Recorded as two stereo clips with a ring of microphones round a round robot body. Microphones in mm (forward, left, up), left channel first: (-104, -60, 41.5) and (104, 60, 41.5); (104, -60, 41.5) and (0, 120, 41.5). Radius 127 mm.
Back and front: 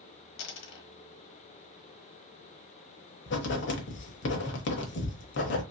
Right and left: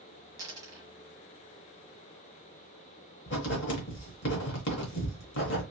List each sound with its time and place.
0.4 s a dropped coin: 165° right, 1.0 m
3.3 s writing: 105° right, 0.9 m